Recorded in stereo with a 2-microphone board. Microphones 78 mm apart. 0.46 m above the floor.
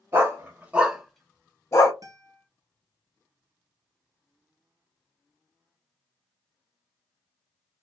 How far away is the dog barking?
About 1.2 m.